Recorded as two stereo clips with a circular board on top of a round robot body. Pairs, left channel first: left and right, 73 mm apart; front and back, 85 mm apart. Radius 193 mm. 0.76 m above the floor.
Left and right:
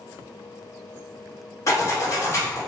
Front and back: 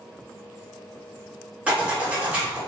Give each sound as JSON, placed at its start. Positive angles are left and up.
{"t": 1.7, "sound": "a zipper", "azimuth_deg": 110, "distance_m": 1.4}